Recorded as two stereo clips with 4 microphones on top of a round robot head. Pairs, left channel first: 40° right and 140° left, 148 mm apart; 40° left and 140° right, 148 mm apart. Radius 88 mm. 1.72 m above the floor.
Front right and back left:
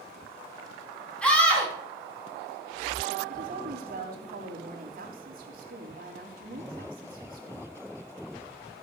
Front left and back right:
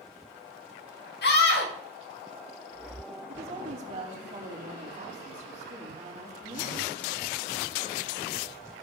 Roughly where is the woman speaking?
Behind.